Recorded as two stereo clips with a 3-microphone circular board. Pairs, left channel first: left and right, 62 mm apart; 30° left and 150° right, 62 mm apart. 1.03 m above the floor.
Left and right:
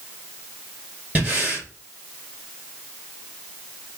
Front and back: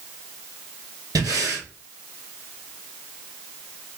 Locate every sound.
1.1 s breathing: 155° right, 3 m